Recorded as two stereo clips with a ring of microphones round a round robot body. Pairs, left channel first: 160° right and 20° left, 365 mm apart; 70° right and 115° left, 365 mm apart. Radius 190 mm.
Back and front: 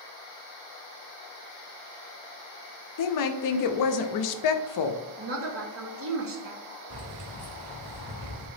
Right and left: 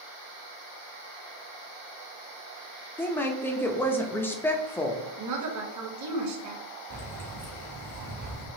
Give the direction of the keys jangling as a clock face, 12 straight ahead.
10 o'clock.